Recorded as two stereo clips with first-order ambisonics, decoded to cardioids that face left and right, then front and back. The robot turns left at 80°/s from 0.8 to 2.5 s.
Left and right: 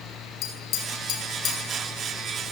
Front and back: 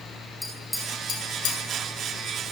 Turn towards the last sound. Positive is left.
turn(degrees=-50)